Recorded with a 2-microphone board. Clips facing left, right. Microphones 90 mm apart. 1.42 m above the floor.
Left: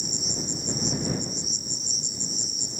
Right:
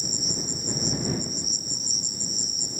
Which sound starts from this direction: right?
An insect, at 0.0 s.